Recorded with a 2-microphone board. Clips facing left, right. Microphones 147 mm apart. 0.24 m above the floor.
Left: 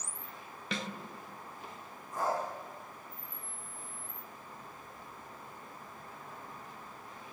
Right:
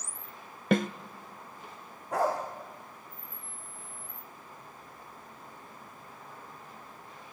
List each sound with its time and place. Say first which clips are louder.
0.7 s a snare drum: right 13 dB; 55° right (ahead or behind), 1.0 m
2.1 s a dog barking: right 5 dB; 80° right, 4.5 m